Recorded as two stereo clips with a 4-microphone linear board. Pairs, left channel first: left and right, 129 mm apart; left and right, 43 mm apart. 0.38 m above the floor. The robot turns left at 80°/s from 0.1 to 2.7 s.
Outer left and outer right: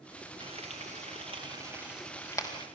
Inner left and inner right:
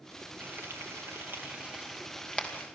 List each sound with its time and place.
0.4 s frying: 40° right (ahead or behind), 2.5 m; by 2.7 s 40° left (ahead or behind), 2.5 m